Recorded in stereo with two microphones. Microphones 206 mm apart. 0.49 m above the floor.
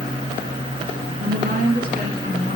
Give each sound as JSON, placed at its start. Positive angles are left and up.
{"t": 1.2, "sound": "a woman speaking", "side_deg": -50, "distance_m": 5.0}